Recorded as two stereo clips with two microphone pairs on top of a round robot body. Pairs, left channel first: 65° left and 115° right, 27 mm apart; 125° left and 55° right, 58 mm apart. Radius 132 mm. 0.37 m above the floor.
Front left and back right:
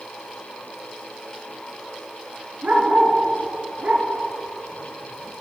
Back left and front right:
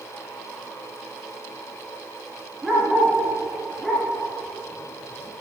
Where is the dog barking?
145° right, 1.8 m.